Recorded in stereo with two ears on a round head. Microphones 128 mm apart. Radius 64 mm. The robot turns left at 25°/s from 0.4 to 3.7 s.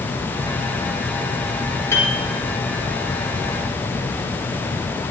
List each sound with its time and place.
1.9 s a piano: 15° left (ahead or behind), 3.5 m; by 2.1 s 10° left (ahead or behind), 3.5 m